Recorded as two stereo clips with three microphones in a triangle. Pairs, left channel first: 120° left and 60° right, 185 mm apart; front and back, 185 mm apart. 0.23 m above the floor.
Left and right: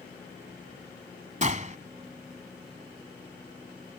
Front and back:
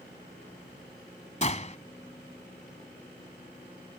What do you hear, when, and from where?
1.4 s a gunshot: 35° right